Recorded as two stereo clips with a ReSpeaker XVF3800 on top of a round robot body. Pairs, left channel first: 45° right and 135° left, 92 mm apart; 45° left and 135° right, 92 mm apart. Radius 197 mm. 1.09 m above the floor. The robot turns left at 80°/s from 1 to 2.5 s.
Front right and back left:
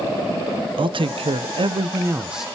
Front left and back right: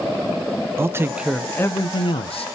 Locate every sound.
0.8 s a man speaking: 160° left, 0.7 m; by 2.5 s 45° left, 0.7 m